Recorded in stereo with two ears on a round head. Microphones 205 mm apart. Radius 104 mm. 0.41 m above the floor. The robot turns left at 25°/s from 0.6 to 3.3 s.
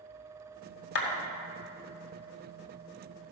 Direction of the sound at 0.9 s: 45° left (ahead or behind).